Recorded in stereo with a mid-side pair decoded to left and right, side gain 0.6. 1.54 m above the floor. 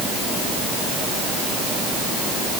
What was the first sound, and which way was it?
Only background noise.